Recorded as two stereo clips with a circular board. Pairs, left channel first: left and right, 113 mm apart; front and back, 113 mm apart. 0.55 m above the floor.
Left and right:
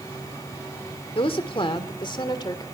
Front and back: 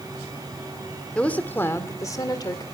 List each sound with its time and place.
1.1 s a woman speaking: 80° left, 1.8 m; by 2.6 s 45° left, 2 m